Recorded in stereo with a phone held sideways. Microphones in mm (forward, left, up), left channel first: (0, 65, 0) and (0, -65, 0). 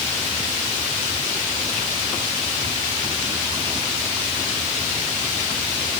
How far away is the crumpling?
I don't hear crumpling.